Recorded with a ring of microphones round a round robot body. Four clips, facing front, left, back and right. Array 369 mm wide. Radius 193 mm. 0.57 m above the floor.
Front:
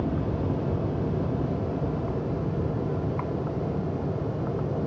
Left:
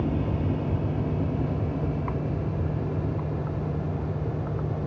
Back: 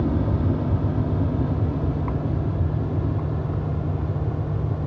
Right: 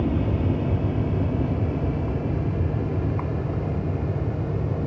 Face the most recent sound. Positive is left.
turn(degrees=-155)